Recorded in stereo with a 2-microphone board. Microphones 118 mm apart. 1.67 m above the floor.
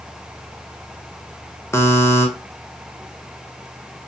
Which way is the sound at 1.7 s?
20° left (ahead or behind).